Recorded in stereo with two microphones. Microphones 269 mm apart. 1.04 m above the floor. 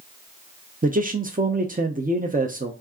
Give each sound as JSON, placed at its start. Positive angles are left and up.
{"t": 0.8, "sound": "a man speaking", "side_deg": -30, "distance_m": 0.7}